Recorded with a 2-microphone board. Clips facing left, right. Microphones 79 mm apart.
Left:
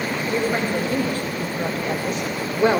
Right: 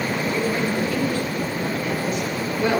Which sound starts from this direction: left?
A woman speaking, at 0.3 s.